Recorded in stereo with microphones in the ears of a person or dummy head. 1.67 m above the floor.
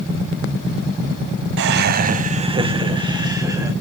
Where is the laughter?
60° right (ahead or behind), 0.7 m; by 3.7 s 5° right (ahead or behind), 1.8 m.